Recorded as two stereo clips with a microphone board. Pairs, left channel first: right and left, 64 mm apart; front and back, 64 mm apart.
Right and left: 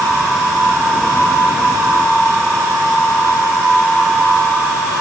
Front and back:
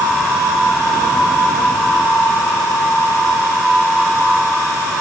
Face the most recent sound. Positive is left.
No sound to turn to.